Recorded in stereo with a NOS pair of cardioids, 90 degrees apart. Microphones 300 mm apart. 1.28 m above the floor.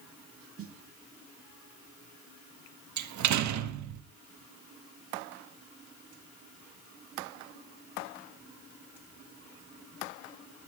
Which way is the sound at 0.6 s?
50° right.